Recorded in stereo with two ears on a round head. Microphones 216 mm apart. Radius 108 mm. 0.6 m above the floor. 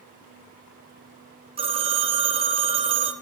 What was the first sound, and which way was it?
A phone ringing, 25° right (ahead or behind).